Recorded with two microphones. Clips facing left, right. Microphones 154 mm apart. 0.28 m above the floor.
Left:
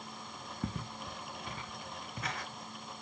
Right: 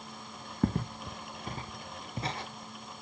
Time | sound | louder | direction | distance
0.6 | footsteps | right 10 dB | 60° right (ahead or behind) | 0.8 m